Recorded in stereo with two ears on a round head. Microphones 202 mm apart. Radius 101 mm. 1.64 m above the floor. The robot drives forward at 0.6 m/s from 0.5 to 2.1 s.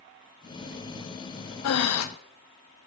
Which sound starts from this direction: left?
Breathing, at 1.6 s.